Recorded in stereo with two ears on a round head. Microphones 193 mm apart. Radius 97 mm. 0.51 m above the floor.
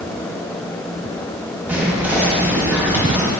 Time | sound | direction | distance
1.7 | whispering | 5° right (ahead or behind) | 0.7 m